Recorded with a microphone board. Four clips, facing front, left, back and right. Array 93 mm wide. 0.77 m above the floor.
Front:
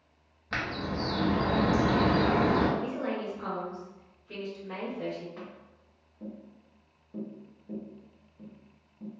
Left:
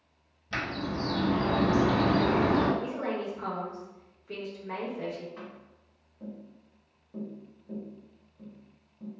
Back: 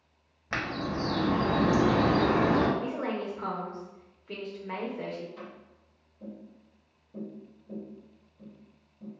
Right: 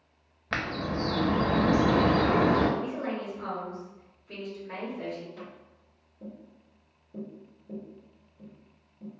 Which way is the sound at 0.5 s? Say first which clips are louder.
Right 2 dB, back 1 dB; 110° right.